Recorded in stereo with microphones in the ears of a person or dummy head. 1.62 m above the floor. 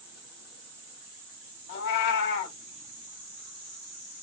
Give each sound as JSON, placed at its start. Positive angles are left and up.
{"t": 1.7, "sound": "a cat meowing", "side_deg": 55, "distance_m": 1.9}